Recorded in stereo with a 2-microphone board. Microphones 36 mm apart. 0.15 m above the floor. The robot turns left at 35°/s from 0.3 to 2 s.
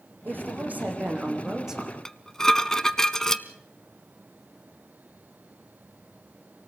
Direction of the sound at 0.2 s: 115° right.